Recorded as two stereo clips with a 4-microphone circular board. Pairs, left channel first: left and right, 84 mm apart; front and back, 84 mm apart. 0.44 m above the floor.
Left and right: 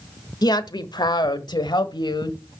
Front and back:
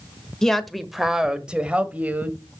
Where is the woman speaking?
80° left, 1.2 m; by 2.4 s 110° left, 1.9 m.